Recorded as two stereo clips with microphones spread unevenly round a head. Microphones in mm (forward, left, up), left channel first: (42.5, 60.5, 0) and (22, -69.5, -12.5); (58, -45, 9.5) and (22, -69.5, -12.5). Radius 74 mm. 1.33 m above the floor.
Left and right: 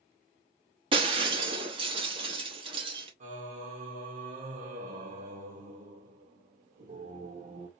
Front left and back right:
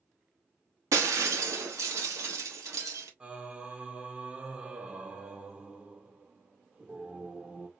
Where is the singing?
75° right, 1.1 m.